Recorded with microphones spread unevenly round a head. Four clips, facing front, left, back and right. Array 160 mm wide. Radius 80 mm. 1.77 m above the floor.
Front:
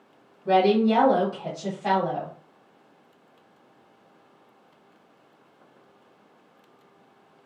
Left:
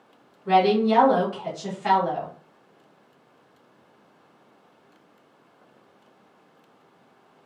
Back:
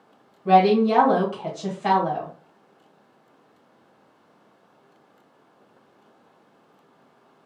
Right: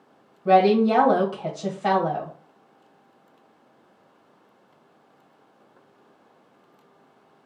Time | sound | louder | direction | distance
0.5 | a woman speaking | right 2 dB, back 3 dB | 110° right | 1.5 m